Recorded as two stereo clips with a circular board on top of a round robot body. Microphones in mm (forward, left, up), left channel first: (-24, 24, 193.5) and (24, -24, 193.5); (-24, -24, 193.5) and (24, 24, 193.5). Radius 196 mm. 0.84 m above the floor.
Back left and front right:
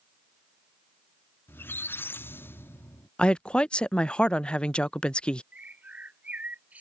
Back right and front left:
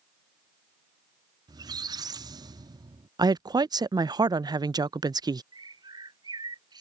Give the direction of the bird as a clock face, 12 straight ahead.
11 o'clock.